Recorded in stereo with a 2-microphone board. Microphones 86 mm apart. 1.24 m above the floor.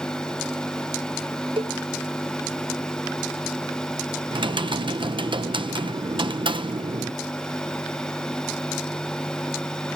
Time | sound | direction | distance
1.6 | a cowbell | 75° right (ahead or behind) | ?
4.3 | typing on a keyboard | 70° right (ahead or behind) | ?